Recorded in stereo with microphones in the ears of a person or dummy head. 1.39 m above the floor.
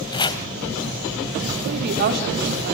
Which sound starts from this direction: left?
Chopping, at 0.1 s.